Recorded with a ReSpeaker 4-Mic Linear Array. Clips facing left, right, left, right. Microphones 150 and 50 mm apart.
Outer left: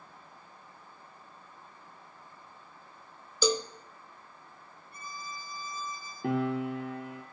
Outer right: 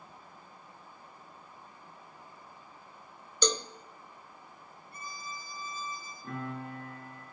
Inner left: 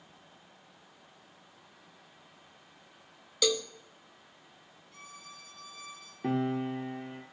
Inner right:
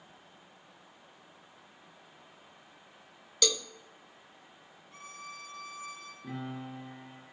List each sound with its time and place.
3.4 s a cowbell: 5° left (ahead or behind), 0.7 m
4.9 s a violin: 35° right (ahead or behind), 6.5 m
6.2 s a piano: 80° left, 1.9 m